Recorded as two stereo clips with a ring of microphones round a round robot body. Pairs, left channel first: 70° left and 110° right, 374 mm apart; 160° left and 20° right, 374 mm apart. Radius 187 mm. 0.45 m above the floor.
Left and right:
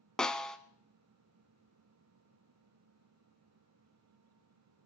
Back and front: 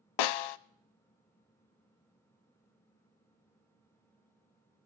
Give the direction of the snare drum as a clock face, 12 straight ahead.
7 o'clock.